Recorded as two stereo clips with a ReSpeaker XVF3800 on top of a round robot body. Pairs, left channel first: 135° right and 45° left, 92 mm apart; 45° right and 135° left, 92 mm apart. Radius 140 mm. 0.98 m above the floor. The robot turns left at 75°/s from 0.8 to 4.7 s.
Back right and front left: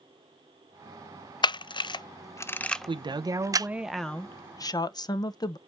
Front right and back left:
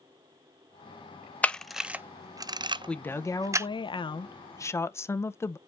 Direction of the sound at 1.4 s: 115° right.